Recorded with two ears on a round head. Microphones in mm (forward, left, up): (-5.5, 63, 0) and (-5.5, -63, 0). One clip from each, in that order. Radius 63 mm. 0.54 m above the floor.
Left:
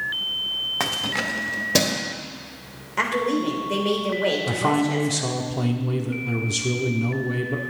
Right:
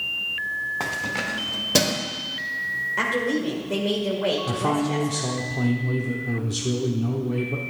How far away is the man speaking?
About 0.9 m.